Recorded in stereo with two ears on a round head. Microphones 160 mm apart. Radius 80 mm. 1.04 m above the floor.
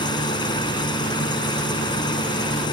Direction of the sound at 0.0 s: 25° left (ahead or behind).